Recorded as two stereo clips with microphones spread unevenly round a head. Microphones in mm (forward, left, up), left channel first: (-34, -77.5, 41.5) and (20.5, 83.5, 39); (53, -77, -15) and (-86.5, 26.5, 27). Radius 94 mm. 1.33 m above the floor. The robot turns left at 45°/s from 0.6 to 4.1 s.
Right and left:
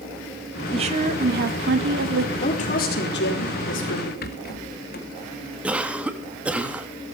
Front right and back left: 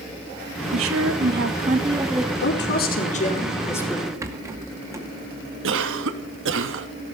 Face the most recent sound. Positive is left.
turn(degrees=155)